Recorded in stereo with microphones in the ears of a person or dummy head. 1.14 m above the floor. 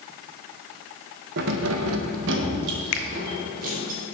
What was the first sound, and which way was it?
Keys jangling, 55° right (ahead or behind).